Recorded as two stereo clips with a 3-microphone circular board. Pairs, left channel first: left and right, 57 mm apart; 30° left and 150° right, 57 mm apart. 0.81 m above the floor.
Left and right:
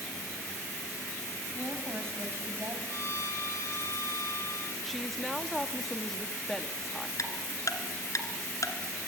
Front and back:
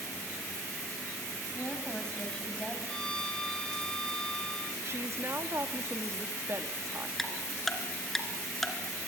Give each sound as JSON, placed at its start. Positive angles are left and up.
{"t": 1.5, "sound": "a woman speaking", "azimuth_deg": -45, "distance_m": 5.0}
{"t": 2.9, "sound": "a violin", "azimuth_deg": 105, "distance_m": 2.0}
{"t": 4.8, "sound": "a woman speaking", "azimuth_deg": 180, "distance_m": 1.4}
{"t": 7.2, "sound": "ticking", "azimuth_deg": 115, "distance_m": 2.5}